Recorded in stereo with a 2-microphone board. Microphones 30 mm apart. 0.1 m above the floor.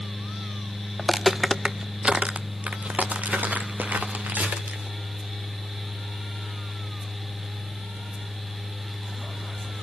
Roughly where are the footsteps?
Centre.